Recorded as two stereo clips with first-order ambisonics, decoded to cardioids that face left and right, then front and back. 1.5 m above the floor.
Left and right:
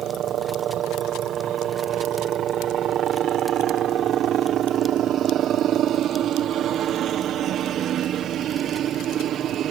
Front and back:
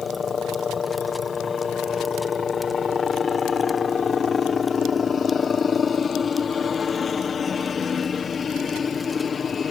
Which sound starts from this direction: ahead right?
A helicopter, at 0.0 s.